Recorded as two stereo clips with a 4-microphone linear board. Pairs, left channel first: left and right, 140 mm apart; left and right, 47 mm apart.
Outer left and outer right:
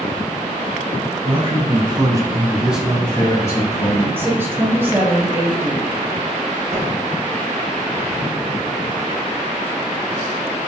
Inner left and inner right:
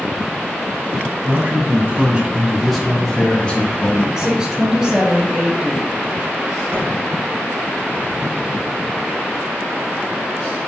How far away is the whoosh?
About 1.7 m.